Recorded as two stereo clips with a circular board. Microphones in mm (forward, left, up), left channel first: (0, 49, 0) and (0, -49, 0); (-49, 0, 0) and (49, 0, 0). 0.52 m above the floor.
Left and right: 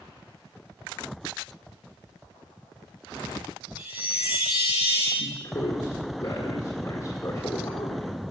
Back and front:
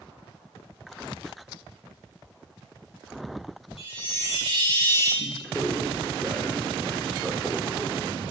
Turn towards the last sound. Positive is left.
turn(degrees=90)